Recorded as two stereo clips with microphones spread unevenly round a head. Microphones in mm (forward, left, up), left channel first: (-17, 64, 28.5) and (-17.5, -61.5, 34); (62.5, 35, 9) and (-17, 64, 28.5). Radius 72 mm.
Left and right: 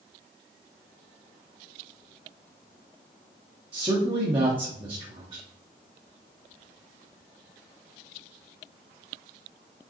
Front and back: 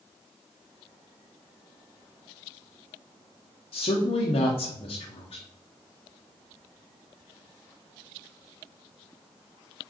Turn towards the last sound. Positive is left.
turn(degrees=-35)